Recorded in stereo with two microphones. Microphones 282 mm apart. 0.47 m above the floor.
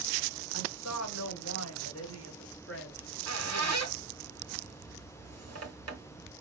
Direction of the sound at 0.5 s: 70° left (ahead or behind).